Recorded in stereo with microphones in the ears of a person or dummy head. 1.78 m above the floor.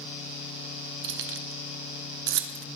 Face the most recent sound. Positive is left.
turn(degrees=-70)  # may be behind; listen again after turning